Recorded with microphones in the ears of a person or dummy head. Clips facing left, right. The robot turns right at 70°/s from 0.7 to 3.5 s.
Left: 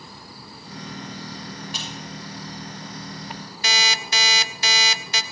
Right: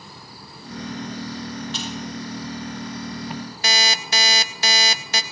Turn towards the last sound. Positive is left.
turn(degrees=-35)  # may be behind; listen again after turning